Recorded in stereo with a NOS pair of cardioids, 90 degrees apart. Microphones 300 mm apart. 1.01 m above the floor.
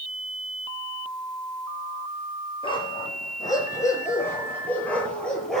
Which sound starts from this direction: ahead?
A dog barking, at 2.6 s.